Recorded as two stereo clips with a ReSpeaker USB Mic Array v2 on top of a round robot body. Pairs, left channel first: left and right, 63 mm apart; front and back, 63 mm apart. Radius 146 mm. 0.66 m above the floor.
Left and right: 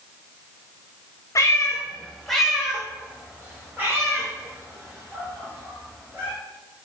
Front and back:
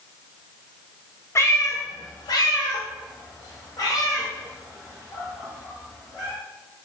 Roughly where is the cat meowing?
Ahead left.